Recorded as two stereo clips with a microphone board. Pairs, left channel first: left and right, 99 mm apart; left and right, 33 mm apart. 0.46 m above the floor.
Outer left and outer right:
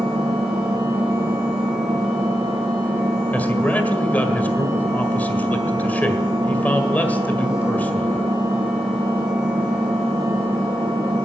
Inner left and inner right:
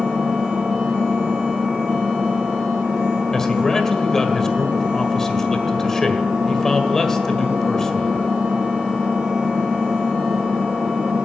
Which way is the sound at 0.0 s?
75° right (ahead or behind).